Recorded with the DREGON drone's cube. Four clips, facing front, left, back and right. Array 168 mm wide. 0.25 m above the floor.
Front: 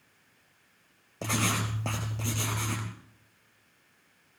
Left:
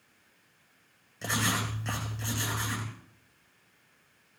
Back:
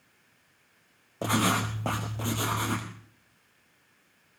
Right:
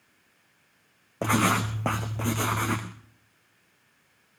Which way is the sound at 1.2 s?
100° right.